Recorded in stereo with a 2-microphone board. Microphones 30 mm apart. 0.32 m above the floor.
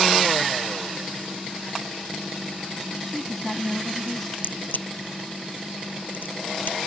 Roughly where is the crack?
Left.